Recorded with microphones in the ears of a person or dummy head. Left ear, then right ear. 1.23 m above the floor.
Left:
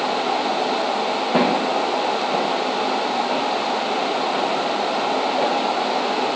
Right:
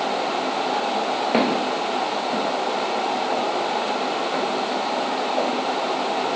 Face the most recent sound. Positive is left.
turn(degrees=-30)  # may be behind; listen again after turning